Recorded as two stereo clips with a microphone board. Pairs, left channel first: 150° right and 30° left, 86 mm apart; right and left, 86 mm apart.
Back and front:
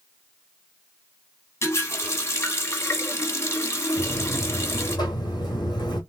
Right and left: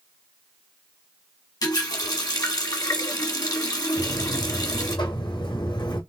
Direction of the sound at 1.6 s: 105° right.